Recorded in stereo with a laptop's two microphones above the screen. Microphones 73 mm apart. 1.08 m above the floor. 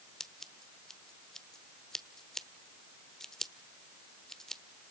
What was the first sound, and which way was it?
Scissors, 10° left (ahead or behind).